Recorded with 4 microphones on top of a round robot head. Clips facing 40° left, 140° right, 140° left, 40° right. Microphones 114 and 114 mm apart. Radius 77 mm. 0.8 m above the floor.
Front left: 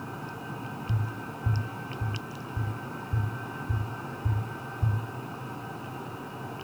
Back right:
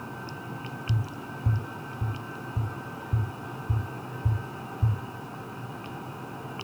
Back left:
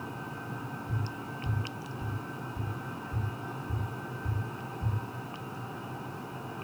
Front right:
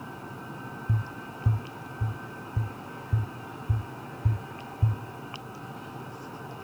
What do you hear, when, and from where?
0.9 s tapping: 65° right, 1.4 m